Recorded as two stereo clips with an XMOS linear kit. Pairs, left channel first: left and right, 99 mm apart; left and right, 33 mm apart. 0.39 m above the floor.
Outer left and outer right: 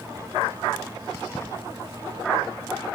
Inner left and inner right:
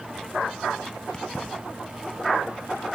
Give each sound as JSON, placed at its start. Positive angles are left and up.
{"t": 1.1, "sound": "keys jangling", "side_deg": 30, "distance_m": 2.5}